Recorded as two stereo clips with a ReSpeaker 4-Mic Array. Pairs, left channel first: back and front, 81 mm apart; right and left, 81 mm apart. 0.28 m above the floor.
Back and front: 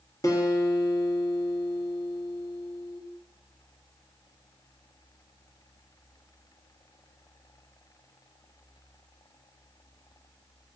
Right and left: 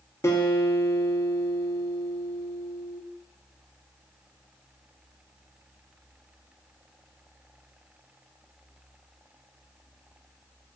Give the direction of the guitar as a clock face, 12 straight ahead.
5 o'clock.